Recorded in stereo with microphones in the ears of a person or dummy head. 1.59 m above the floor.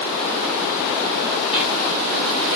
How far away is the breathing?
About 1.2 m.